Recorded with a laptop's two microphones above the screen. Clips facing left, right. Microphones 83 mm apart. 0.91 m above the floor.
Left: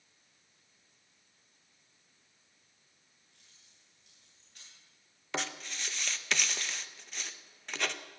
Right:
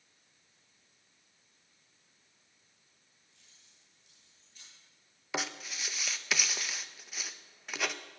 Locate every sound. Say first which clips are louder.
3.3 s keys jangling: right 1 dB; 50° left (ahead or behind), 8.5 m; by 4.7 s 55° left (ahead or behind), 10.5 m
5.3 s writing: even; 5° right (ahead or behind), 0.7 m